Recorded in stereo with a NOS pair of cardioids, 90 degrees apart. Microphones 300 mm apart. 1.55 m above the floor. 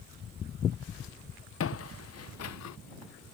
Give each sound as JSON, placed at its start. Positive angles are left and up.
{"t": 1.6, "sound": "footsteps", "azimuth_deg": 50}